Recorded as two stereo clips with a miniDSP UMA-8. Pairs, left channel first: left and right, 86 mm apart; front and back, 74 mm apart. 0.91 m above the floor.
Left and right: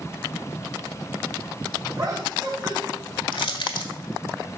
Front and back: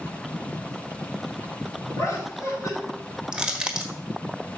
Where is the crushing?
100° left, 1.4 m.